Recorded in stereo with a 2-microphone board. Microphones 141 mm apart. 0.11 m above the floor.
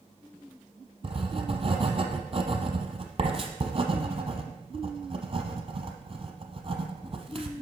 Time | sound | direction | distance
1.0 | writing | 45° right (ahead or behind) | 0.9 m